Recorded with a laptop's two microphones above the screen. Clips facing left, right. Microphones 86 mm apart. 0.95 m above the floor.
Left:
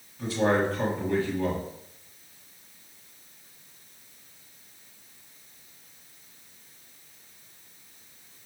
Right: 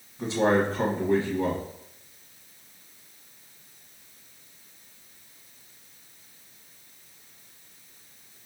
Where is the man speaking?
25° right (ahead or behind), 1.0 m.